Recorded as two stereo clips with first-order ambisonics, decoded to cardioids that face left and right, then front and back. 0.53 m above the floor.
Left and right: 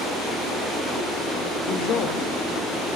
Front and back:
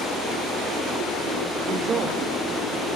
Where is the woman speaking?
120° left, 1.2 m.